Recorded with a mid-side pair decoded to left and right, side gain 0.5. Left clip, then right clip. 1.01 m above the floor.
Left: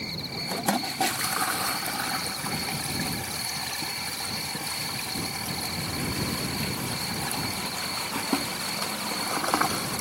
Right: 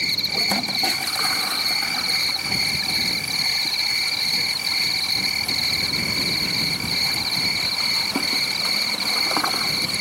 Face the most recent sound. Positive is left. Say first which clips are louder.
# right 12 dB
turn(degrees=-70)